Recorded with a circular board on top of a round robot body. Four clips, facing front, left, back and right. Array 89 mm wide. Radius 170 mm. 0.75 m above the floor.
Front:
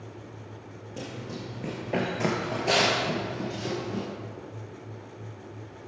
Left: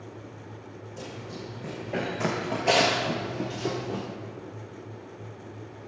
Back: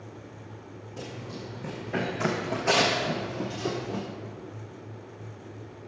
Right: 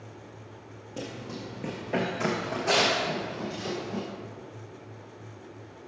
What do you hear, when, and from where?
1.0 s running footsteps: 55° right, 1.0 m; by 4.0 s 115° left, 1.1 m